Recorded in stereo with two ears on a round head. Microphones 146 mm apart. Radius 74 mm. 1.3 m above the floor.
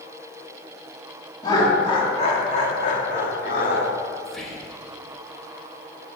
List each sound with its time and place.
1.4 s laughter: 20° left (ahead or behind), 2 m; by 3.9 s 60° left (ahead or behind), 2.5 m
4.2 s whispering: centre (ahead or behind), 1.8 m